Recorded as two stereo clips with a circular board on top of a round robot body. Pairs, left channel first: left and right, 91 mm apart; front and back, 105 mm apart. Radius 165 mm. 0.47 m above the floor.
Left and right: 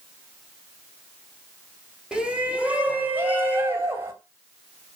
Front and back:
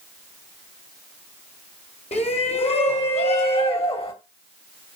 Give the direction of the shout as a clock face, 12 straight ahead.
12 o'clock.